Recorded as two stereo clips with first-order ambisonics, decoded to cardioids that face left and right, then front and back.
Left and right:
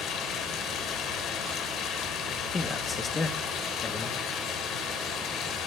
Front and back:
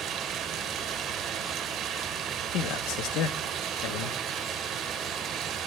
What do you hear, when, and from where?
0.0 s running water: 135° left, 1.1 m
2.5 s a man speaking: 15° left, 0.8 m